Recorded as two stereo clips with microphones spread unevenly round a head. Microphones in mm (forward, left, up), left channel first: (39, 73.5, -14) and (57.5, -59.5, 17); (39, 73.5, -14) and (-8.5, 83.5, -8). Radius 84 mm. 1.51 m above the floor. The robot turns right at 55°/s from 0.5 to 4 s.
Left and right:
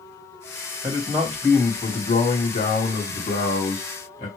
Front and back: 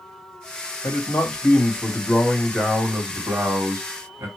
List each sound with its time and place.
0.8 s a man speaking: 15° right, 3 m; by 4.3 s 160° left, 3 m